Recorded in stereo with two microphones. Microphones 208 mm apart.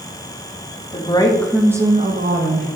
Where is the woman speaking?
25° left (ahead or behind), 1.9 m; by 2.7 s 65° right (ahead or behind), 1.6 m.